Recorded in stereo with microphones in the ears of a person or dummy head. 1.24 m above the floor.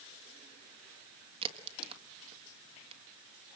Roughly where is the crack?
Right.